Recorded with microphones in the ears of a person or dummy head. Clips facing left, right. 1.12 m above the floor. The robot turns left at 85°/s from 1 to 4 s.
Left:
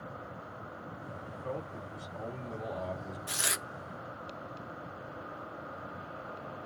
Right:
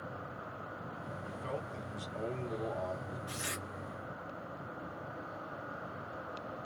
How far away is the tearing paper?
About 0.5 m.